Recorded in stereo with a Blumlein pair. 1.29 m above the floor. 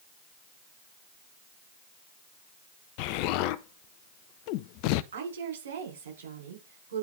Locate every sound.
3.0 s an explosion: 45° left, 0.5 m
5.1 s a woman speaking: 60° right, 5 m